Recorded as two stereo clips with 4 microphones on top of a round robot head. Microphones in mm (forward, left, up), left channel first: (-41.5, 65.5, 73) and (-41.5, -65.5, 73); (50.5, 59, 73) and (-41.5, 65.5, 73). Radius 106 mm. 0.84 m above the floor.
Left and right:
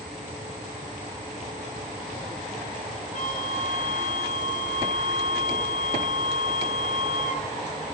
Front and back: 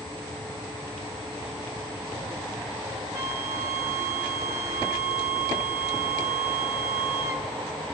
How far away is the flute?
About 1.9 m.